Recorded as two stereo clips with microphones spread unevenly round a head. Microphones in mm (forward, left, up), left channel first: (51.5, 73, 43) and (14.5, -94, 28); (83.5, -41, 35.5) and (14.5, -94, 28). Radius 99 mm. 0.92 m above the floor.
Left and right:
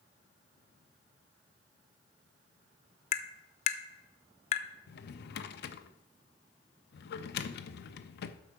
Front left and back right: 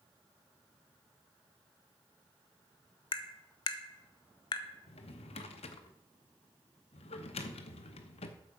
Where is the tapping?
40° left, 0.8 m.